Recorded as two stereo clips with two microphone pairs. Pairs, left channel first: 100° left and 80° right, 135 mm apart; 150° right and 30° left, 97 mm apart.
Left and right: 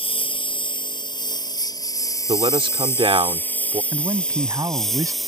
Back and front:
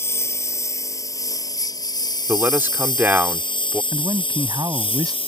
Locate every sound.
0.0 s a lawn mower: 145° left; by 5.3 s 170° right
2.3 s a man speaking: 40° right
3.9 s a man speaking: 15° right